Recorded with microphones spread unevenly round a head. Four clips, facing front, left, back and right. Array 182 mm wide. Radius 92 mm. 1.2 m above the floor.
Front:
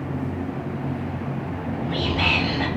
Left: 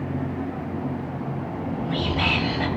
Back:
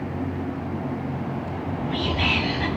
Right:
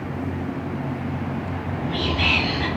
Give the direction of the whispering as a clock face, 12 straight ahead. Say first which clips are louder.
Even, front 1 dB; 11 o'clock.